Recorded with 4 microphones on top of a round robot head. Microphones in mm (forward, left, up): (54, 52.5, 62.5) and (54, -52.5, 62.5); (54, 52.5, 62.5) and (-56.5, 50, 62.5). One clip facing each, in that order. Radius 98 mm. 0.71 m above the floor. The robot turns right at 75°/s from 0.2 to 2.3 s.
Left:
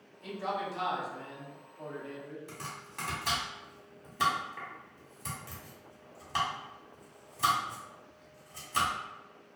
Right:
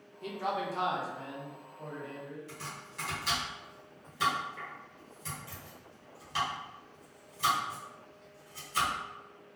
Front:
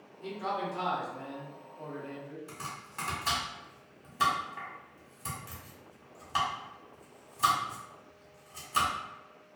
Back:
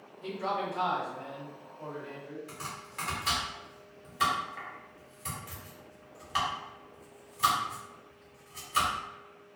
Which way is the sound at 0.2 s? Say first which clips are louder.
Right 1 dB, back 1 dB; 100° right.